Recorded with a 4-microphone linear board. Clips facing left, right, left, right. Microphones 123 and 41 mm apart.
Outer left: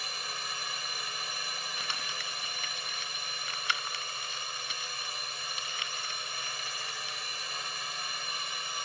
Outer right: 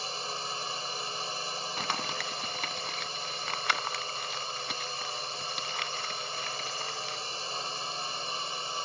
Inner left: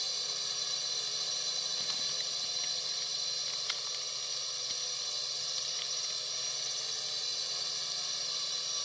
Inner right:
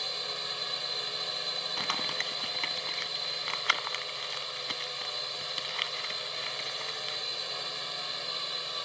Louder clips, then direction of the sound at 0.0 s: Outer right 4 dB, inner right 4 dB; 30° right (ahead or behind).